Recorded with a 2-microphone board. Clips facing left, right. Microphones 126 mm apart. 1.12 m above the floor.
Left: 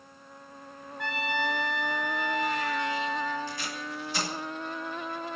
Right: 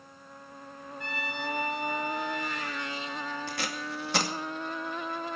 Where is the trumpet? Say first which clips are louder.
Left 6 dB; 80° left, 3 m.